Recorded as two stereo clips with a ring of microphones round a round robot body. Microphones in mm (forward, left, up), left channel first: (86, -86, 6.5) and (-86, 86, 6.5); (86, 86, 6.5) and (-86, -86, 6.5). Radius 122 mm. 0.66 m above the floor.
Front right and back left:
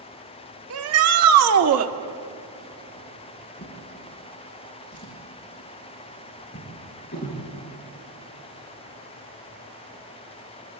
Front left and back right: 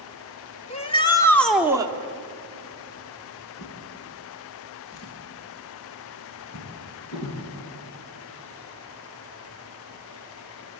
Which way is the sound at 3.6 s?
10° left.